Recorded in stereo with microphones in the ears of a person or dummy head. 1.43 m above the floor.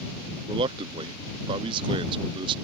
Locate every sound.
0.5 s a man speaking: 30° right (ahead or behind)